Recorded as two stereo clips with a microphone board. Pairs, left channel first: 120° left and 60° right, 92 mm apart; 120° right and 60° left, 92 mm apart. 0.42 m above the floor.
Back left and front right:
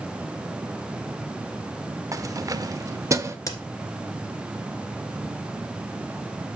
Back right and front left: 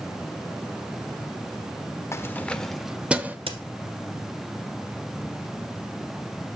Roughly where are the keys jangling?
Right.